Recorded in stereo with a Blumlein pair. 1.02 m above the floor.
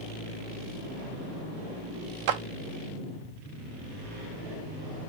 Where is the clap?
45° right, 0.5 m.